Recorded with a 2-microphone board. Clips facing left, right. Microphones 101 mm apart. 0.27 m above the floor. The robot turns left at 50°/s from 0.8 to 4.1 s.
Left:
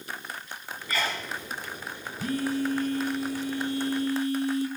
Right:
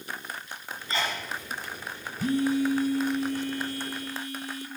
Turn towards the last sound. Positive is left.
turn(degrees=130)